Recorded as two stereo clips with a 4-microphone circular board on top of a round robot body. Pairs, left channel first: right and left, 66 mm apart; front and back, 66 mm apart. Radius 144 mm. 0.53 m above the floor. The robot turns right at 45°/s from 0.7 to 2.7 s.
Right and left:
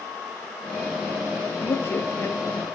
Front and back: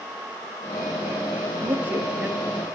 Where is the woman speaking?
140° right, 1.2 m; by 2.4 s 105° right, 1.2 m.